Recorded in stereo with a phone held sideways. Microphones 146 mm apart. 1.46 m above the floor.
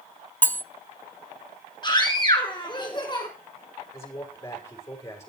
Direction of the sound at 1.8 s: 30° left (ahead or behind).